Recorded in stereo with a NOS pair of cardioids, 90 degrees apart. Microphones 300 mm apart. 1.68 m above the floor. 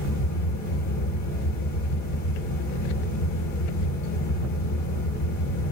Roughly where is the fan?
Left.